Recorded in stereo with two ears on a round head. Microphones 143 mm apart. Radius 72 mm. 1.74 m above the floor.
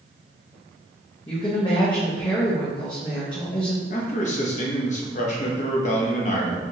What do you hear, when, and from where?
1.3 s a woman speaking: 30° left (ahead or behind), 1.0 m
3.9 s a man speaking: 50° left (ahead or behind), 0.9 m